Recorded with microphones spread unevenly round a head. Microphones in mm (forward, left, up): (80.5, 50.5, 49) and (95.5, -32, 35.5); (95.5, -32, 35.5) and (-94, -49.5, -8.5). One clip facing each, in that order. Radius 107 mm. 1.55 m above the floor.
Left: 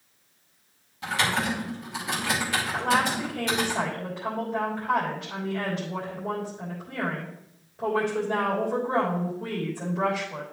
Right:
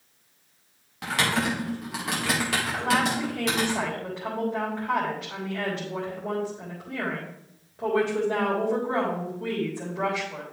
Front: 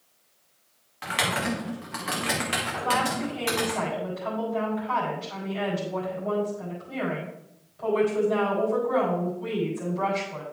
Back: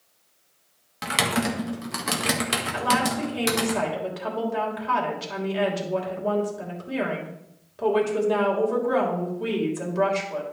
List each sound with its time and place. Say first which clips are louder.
1.0 s typing on a keyboard: right 1 dB, back 4 dB; 135° right, 1.9 m
2.7 s a woman speaking: left 1 dB, back 3 dB; 170° right, 3 m